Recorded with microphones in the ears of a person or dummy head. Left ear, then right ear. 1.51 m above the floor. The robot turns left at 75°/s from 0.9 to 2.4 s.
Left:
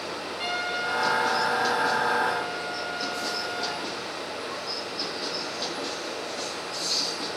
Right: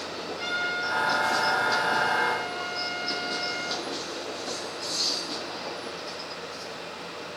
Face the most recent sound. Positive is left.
turn(degrees=-95)